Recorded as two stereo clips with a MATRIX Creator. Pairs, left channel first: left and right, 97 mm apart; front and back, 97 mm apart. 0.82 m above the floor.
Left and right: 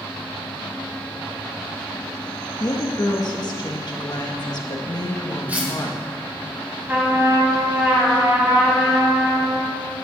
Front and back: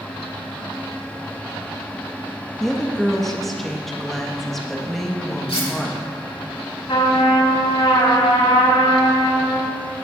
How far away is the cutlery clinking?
About 2 m.